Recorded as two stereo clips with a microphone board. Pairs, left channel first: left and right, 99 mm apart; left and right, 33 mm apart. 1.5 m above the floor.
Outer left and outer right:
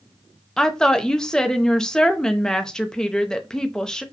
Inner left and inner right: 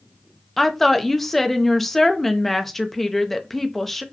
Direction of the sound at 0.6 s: 5° left (ahead or behind).